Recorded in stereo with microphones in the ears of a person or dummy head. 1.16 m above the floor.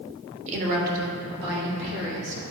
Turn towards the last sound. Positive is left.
turn(degrees=-70)  # may be behind; listen again after turning